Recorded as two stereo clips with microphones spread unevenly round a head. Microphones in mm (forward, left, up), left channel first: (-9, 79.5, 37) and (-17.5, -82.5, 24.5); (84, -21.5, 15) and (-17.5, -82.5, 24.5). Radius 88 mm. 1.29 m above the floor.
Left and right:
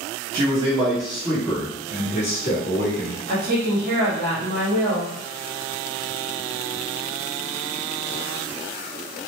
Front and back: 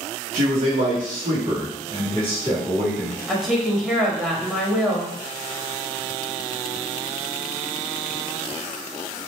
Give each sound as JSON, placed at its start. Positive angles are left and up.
{"t": 0.3, "sound": "a man speaking", "azimuth_deg": -160, "distance_m": 1.0}
{"t": 3.3, "sound": "a woman speaking", "azimuth_deg": -60, "distance_m": 0.8}